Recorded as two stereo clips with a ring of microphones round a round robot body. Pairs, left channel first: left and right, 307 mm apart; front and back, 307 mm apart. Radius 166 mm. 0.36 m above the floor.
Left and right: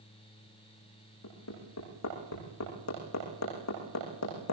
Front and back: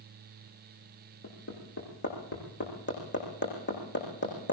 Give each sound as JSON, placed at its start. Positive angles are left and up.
{"t": 1.2, "sound": "hammering", "azimuth_deg": 55, "distance_m": 10.0}